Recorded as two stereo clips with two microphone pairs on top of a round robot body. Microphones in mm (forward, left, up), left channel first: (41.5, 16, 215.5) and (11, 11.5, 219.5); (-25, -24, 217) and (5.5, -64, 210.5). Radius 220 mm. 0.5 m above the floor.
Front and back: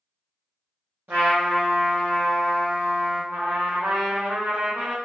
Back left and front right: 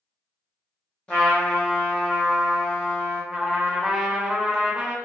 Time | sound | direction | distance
1.1 | a trumpet | 170° right | 0.6 m
3.3 | a trumpet | 125° right | 1.0 m